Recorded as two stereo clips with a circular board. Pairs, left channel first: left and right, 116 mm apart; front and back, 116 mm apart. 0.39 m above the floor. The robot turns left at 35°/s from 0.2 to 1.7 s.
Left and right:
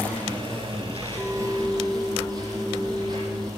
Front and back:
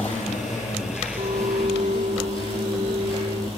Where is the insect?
15° left, 8.5 m; by 3.6 s 40° right, 8.5 m.